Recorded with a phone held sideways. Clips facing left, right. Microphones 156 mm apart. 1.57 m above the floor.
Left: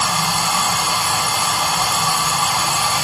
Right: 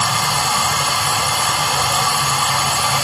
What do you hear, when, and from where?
0.0 s running water: 65° right (ahead or behind), 7 m